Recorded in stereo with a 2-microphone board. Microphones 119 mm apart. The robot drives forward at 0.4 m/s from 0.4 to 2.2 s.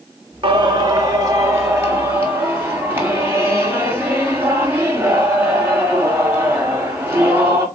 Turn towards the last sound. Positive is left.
turn(degrees=-20)  # may be behind; listen again after turning